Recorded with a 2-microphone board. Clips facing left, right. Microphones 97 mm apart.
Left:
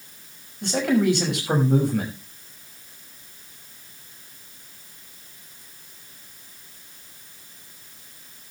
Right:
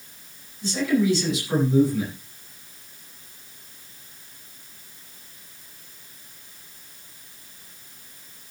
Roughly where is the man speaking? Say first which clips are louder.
Left 1 dB; left.